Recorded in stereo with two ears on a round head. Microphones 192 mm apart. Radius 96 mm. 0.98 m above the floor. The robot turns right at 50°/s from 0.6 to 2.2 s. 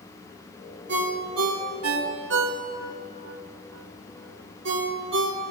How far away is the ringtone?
About 4.5 m.